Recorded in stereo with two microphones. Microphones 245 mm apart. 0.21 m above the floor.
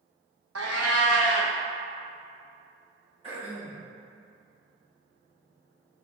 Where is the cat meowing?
80° right, 0.8 m.